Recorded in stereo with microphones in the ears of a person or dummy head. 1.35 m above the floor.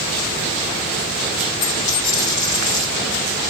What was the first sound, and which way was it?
A dropped coin, 30° left (ahead or behind).